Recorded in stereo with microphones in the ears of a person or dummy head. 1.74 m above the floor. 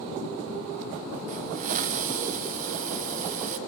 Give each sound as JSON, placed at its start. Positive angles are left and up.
{"t": 1.3, "sound": "a hiss", "side_deg": -40, "distance_m": 0.6}